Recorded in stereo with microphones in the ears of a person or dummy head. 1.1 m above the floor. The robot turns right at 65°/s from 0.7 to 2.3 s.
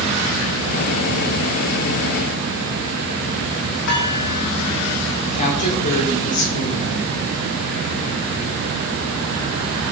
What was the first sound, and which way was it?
Dishes clattering, 60° left (ahead or behind).